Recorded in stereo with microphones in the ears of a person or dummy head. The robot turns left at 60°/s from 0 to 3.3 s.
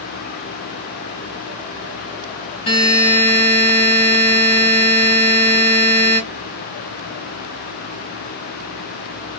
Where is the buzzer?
70° left, 0.8 m; by 6.2 s 35° left, 0.8 m.